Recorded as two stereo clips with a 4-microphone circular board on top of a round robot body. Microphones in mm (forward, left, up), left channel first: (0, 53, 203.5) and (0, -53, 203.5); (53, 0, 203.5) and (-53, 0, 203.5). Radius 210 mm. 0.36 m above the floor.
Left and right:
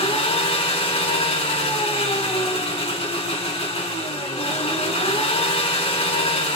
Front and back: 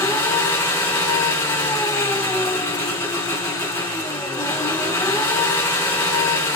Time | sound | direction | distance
0.0 | an engine running | 70° left | 4.5 m